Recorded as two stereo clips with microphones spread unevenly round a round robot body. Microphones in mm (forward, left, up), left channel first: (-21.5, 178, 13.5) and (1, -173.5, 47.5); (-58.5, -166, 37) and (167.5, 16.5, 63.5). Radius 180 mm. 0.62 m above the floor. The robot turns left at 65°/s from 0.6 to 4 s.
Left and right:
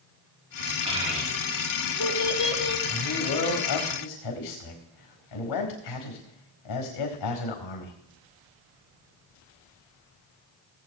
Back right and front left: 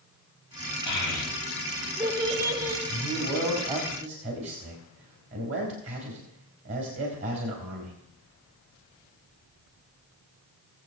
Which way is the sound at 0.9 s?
160° right.